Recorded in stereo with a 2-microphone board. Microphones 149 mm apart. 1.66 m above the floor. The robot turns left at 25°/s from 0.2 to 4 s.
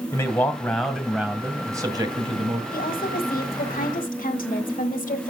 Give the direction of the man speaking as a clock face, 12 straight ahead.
11 o'clock.